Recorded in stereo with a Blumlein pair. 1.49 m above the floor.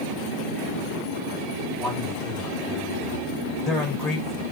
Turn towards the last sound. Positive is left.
turn(degrees=25)